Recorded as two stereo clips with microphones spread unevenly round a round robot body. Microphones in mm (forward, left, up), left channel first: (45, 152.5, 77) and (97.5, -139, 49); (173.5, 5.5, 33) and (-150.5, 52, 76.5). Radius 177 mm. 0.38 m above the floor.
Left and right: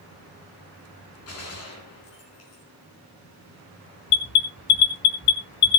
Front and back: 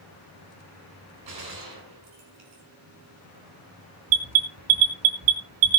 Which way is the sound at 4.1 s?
145° left.